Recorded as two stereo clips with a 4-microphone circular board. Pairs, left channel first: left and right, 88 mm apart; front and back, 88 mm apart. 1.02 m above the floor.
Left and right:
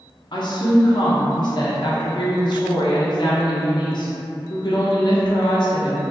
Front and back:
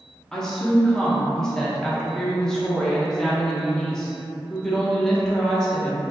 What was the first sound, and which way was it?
A woman speaking, 80° left.